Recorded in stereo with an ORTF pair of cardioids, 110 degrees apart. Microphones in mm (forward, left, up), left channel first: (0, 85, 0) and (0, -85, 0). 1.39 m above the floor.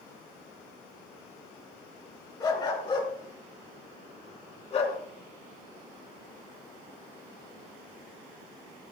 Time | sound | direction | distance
2.4 | a dog barking | 25° left | 5.5 m